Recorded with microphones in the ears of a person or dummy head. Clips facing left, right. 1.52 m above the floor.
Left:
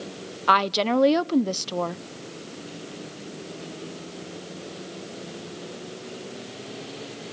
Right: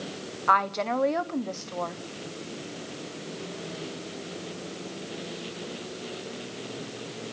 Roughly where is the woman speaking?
Left.